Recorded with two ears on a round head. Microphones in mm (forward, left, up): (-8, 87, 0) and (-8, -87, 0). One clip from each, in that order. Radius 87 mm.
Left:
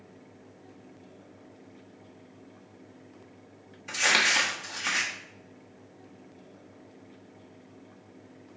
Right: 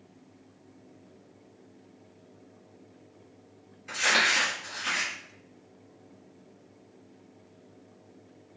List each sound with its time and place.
3.9 s crumpling: 25° left (ahead or behind), 1.2 m